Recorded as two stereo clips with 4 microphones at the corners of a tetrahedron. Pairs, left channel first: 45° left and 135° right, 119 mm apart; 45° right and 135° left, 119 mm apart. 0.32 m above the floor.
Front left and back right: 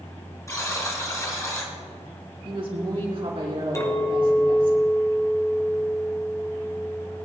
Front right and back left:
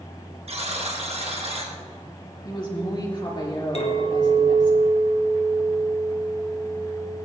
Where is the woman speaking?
95° right, 4 m.